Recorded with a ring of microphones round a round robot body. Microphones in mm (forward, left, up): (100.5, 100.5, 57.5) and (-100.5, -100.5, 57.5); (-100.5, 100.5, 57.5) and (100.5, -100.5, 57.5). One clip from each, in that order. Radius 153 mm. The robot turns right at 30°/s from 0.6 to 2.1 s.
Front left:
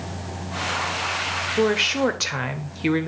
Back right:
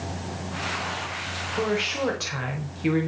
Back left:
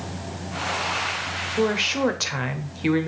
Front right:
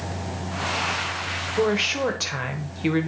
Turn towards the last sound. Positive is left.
turn(degrees=60)